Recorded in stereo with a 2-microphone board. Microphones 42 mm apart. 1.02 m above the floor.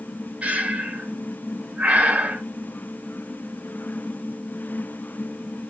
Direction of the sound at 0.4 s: 35° right (ahead or behind).